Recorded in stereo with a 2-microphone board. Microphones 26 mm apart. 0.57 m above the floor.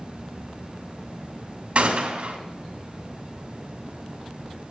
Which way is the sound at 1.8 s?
50° right (ahead or behind).